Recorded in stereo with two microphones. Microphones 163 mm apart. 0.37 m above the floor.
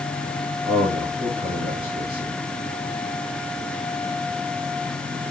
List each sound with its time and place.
0.7 s a man speaking: 25° right (ahead or behind), 5.5 m